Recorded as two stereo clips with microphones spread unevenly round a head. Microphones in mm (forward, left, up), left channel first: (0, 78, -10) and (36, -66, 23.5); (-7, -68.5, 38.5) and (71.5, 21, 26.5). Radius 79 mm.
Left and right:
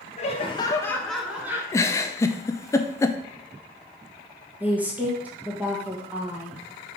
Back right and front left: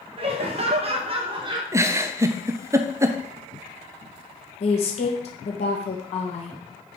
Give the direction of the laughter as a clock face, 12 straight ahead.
9 o'clock.